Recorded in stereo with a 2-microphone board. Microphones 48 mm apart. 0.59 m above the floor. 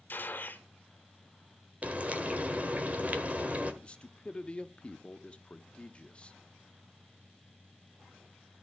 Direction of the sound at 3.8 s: 20° left (ahead or behind).